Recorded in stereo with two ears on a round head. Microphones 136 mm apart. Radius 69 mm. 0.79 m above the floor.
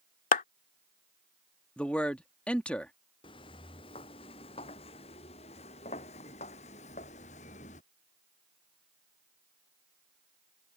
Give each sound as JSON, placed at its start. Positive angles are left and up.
{"t": 0.3, "sound": "a clap", "side_deg": 60}
{"t": 1.8, "sound": "a man speaking", "side_deg": 10}
{"t": 3.2, "sound": "footsteps", "side_deg": 30}